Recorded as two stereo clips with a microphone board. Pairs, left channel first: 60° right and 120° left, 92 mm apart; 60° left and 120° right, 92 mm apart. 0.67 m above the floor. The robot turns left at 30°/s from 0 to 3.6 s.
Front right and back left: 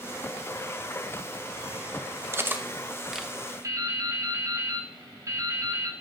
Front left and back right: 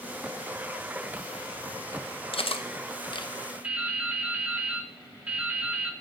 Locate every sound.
2.3 s cutlery clinking: 60° left, 0.7 m; by 3.3 s 30° left, 0.7 m
3.6 s dripping: 165° left, 1.2 m